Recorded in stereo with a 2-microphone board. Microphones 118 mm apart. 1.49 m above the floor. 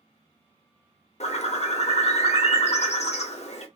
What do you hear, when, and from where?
1.2 s a bird: 70° left (ahead or behind), 0.8 m